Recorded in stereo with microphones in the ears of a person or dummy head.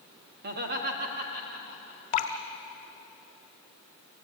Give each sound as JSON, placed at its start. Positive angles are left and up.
{"t": 0.4, "sound": "laughter", "side_deg": -55, "distance_m": 2.0}
{"t": 2.1, "sound": "dripping", "side_deg": 40, "distance_m": 2.0}